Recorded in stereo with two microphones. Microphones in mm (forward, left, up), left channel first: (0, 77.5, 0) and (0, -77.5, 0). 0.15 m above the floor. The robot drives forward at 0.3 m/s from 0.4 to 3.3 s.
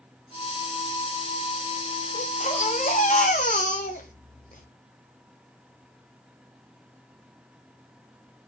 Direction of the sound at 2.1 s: 50° left (ahead or behind).